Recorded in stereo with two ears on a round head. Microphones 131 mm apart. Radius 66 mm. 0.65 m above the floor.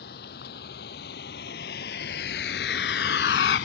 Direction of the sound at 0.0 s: 75° left (ahead or behind).